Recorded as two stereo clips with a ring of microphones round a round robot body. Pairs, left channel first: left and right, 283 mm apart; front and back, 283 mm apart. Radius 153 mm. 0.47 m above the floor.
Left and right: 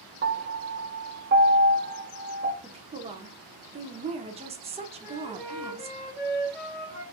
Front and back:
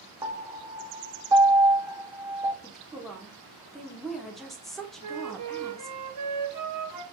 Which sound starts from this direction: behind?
A flute, at 5.0 s.